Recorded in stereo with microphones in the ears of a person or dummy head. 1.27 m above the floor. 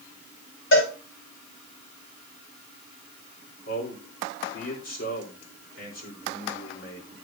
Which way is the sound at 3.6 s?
80° left.